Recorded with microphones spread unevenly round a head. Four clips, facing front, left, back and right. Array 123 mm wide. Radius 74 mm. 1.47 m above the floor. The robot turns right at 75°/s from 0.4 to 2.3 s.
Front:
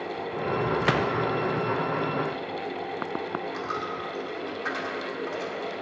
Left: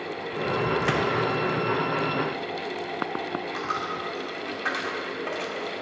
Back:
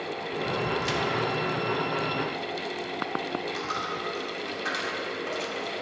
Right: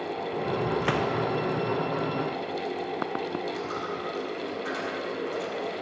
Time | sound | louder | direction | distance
0.8 | a gunshot | left 2 dB, front 4 dB | 30° left | 0.6 m
3.5 | a dropped coin | left 2 dB, even | 90° left | 1.7 m